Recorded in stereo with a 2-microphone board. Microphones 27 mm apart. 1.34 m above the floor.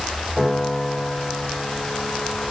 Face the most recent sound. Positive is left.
turn(degrees=-5)  # may be behind; listen again after turning